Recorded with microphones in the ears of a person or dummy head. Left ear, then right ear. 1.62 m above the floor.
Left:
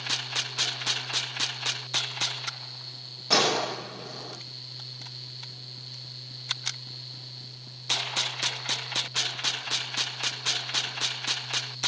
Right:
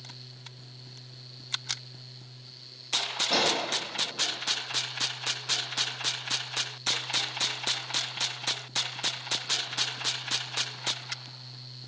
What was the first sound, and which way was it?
A gunshot, 75° left (ahead or behind).